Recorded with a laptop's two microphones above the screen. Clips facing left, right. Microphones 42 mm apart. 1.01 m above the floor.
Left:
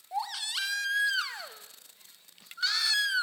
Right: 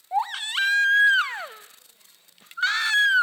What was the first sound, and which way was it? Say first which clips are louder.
A baby crying: right 8 dB; 40° right (ahead or behind).